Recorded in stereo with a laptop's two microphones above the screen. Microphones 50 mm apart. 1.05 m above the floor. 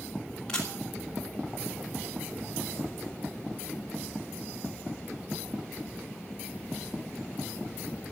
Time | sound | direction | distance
0.5 | a camera shutter | 15° left (ahead or behind) | 2.5 m